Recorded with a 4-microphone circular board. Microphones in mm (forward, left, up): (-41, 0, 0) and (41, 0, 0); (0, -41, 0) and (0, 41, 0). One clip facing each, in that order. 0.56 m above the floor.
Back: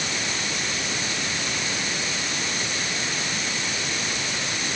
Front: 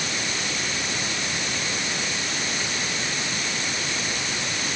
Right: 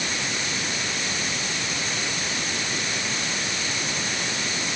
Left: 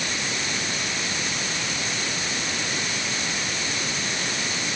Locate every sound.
Only background noise.